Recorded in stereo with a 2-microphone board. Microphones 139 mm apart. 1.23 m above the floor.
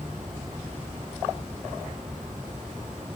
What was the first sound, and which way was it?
Only background noise.